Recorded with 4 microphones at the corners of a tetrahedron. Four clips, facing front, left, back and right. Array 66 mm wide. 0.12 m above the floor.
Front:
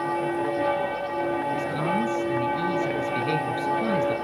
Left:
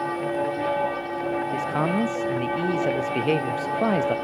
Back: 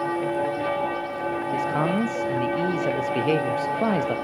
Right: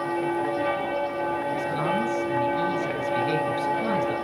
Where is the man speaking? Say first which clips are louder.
Left 1 dB, back 2 dB; 130° left, 3.5 m.